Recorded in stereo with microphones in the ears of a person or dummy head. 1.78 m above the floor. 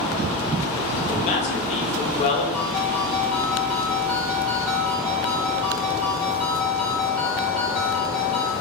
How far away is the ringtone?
About 2.5 m.